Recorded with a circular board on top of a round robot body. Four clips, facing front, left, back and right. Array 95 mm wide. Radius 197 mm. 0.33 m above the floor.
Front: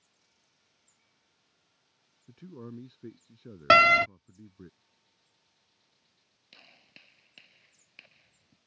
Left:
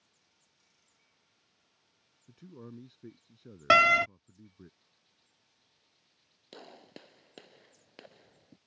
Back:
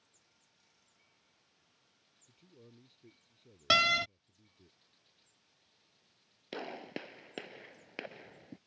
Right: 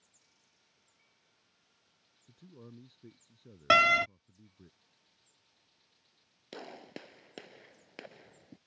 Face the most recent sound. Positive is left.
turn(degrees=-165)